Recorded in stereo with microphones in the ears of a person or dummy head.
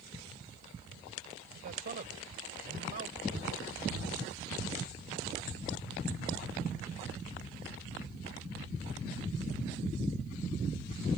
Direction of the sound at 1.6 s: 50° right (ahead or behind).